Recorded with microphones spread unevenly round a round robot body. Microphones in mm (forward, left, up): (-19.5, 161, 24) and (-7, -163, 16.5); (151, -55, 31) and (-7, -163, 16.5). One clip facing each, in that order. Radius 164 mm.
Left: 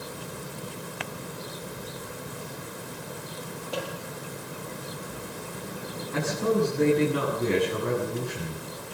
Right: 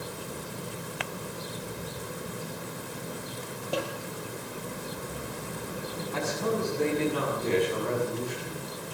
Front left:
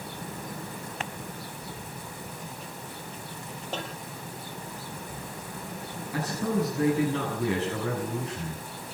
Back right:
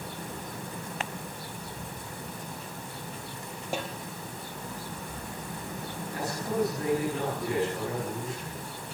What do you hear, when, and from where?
3.7 s a snare drum: 65° right, 4 m
6.1 s a man speaking: 25° left, 7.5 m